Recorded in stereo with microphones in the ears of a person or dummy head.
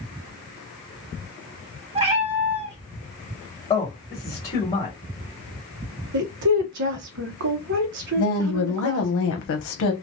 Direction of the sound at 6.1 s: 60° right (ahead or behind).